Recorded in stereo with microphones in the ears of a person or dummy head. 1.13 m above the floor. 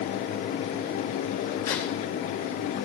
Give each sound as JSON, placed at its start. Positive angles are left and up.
{"t": 1.6, "sound": "a crack", "side_deg": 20, "distance_m": 3.5}